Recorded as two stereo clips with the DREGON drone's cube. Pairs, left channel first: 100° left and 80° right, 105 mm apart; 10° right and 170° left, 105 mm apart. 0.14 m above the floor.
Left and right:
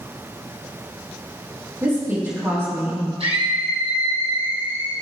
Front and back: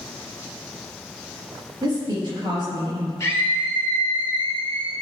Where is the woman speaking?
145° right, 4.5 m.